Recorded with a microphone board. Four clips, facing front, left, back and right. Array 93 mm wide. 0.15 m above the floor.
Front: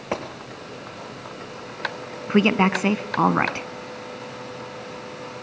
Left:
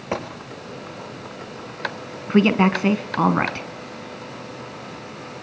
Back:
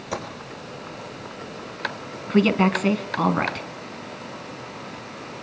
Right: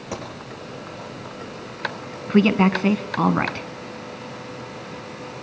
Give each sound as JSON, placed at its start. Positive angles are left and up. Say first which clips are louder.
{"t": 0.1, "sound": "a gunshot", "louder": "left 5 dB, front 2 dB", "azimuth_deg": 45, "distance_m": 3.5}
{"t": 2.3, "sound": "a woman speaking", "louder": "even, even", "azimuth_deg": 25, "distance_m": 1.1}